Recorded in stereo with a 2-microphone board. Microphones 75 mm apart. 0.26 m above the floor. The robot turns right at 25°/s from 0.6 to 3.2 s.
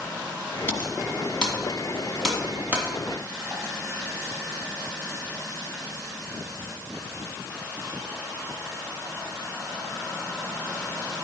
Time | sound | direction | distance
0.7 | typing on a keyboard | 25° left (ahead or behind) | 1.8 m